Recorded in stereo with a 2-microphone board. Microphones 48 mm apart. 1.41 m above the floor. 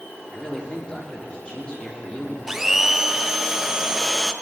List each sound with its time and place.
0.3 s a man speaking: 25° left (ahead or behind), 3 m
2.5 s a blender: 10° right (ahead or behind), 0.5 m